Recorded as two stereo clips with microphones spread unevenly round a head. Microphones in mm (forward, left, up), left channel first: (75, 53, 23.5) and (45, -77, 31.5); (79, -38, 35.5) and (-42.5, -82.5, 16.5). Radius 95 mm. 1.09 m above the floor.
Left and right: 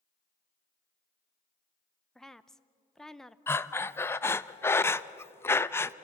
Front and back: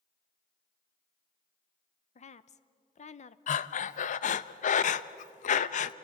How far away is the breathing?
About 0.5 m.